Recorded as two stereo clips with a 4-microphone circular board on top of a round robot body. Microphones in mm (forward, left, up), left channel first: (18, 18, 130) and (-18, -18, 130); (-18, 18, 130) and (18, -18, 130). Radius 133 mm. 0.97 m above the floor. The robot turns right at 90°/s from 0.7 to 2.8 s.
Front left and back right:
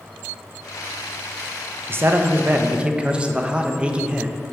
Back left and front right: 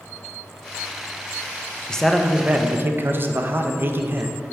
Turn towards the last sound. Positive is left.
turn(degrees=-75)